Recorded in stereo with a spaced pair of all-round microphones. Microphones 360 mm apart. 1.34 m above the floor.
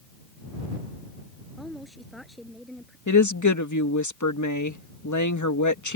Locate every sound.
1.6 s a woman speaking: centre (ahead or behind)
3.1 s a woman speaking: 55° left (ahead or behind)